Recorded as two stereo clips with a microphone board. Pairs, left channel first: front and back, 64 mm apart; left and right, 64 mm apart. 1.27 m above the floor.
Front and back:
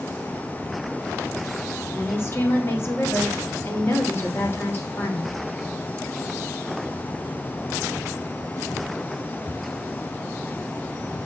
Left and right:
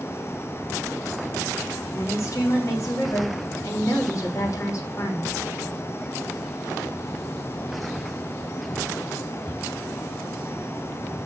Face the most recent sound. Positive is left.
turn(degrees=50)